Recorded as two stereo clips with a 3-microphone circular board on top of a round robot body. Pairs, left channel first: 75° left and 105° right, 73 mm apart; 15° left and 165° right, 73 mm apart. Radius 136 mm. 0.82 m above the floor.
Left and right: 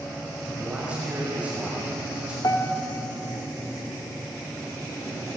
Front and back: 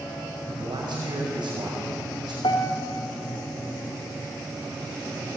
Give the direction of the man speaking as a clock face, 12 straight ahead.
6 o'clock.